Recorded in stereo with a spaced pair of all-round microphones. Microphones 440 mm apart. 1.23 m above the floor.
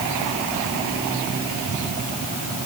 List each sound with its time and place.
Only background noise.